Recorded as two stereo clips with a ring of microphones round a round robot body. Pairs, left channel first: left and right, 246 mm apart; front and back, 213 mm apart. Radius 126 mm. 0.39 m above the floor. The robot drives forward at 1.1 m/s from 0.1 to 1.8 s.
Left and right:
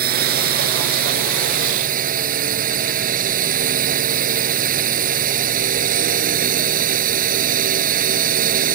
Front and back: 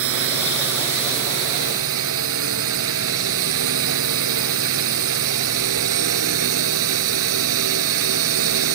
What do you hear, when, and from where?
0.0 s a drone: 145° right; by 8.8 s 150° right